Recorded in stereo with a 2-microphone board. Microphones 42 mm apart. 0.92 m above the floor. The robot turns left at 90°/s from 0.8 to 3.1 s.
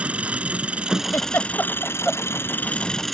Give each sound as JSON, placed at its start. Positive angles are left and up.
{"t": 0.0, "sound": "an engine running", "azimuth_deg": -150}
{"t": 1.1, "sound": "a giggle", "side_deg": 75}